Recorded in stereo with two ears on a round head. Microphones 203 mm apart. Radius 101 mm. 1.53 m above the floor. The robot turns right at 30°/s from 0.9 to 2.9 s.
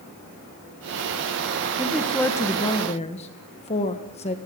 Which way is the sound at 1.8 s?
5° right.